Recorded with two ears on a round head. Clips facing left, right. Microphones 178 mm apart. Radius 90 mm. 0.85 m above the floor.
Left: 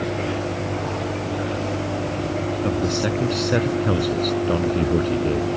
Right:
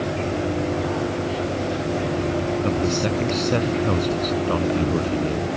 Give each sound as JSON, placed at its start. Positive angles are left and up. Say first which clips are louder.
{"t": 2.6, "sound": "a man speaking", "louder": "even", "side_deg": 0}